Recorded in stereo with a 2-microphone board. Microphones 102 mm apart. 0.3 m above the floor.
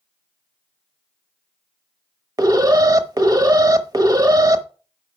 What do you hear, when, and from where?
2.4 s an alarm: 35° right (ahead or behind), 0.8 m